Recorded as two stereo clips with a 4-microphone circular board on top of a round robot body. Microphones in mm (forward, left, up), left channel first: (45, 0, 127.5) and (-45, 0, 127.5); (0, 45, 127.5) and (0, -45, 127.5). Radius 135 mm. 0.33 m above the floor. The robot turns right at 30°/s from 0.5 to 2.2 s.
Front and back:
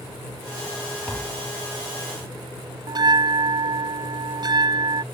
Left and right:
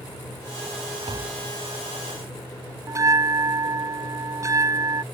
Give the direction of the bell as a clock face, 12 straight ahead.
5 o'clock.